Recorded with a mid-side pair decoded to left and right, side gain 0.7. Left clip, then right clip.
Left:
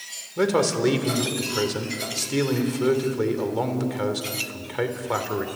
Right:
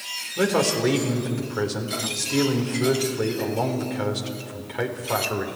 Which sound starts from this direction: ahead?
A man speaking, at 0.4 s.